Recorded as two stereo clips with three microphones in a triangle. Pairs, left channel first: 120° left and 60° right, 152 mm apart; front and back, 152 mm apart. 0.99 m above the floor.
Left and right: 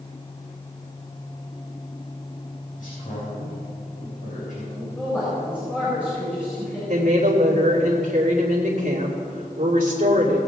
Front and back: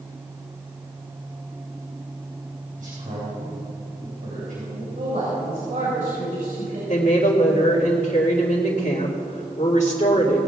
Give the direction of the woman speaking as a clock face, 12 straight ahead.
1 o'clock.